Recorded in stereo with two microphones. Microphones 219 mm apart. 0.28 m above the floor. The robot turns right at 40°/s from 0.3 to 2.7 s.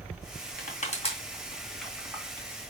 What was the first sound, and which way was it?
Crushing, 40° left (ahead or behind).